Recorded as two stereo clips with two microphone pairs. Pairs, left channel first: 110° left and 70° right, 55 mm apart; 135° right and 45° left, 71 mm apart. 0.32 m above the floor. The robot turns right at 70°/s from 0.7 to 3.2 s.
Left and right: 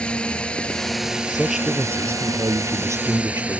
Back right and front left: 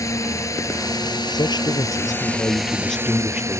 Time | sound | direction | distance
0.0 | a drone | straight behind | ?
1.3 | a man speaking | 165° right | ?